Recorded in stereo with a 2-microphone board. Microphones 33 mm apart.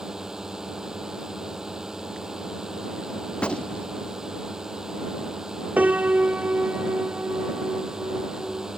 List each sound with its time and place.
0.0 s a drone: 15° right (ahead or behind)
3.3 s a gunshot: 35° left (ahead or behind)
5.8 s a piano: 50° right (ahead or behind)